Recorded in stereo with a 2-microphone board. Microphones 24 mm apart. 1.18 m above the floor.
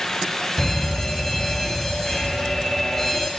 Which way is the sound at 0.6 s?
20° left (ahead or behind).